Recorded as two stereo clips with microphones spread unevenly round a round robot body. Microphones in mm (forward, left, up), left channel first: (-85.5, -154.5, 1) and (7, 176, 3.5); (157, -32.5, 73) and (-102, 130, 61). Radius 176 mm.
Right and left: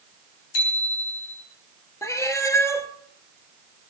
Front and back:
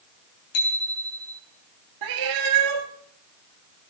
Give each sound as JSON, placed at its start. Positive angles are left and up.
{"t": 0.5, "sound": "a bicycle bell", "azimuth_deg": -80, "distance_m": 6.0}
{"t": 2.0, "sound": "a cat meowing", "azimuth_deg": 175, "distance_m": 1.5}